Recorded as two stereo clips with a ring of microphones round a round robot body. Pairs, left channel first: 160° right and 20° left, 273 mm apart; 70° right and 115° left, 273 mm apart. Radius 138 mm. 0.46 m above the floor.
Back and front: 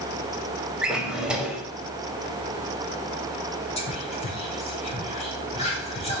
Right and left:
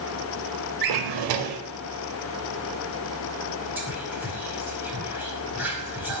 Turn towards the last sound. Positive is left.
turn(degrees=-175)